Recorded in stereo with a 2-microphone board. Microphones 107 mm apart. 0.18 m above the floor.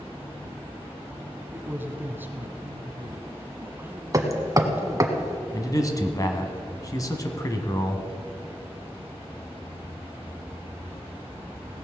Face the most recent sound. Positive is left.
turn(degrees=30)  # may be behind; listen again after turning